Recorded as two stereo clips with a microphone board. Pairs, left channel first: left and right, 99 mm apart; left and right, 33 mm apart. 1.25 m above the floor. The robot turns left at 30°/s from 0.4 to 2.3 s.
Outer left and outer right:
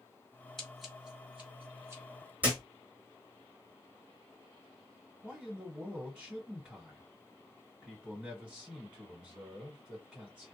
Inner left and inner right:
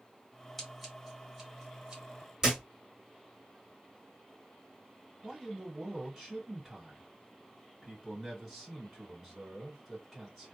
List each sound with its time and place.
0.6 s scissors: 5° left (ahead or behind), 1.4 m; by 2.0 s 30° right (ahead or behind), 1.4 m
2.4 s a thud: 15° right (ahead or behind), 1.1 m
5.2 s a man speaking: 5° right (ahead or behind), 1.2 m